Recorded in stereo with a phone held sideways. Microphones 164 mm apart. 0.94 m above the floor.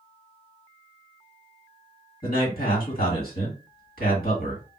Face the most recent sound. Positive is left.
turn(degrees=65)  # may be behind; listen again after turning